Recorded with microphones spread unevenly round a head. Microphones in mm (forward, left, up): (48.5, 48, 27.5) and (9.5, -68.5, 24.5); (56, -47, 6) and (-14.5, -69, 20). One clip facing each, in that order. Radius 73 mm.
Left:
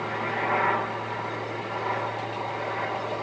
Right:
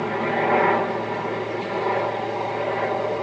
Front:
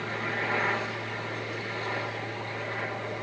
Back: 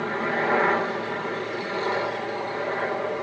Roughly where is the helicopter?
Behind right.